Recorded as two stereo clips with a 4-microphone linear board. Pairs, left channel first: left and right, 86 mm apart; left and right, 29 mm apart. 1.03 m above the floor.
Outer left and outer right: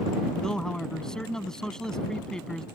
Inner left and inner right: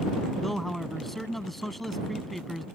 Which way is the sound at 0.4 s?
5° left (ahead or behind).